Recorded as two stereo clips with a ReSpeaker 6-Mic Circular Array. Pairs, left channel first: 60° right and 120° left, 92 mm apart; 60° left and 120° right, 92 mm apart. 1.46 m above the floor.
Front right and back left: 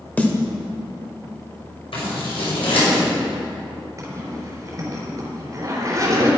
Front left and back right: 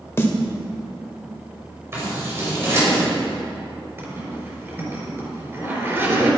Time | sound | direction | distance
0.2 | a snare drum | 10° left | 1.6 m
1.9 | scissors | 60° right | 5 m
4.0 | a zipper | 175° left | 4 m